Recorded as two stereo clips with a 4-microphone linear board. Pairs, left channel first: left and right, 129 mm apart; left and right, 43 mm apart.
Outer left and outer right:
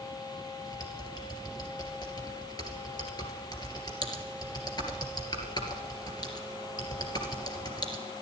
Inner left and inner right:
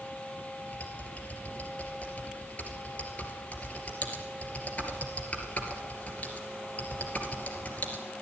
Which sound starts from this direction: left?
Typing on a keyboard, at 0.7 s.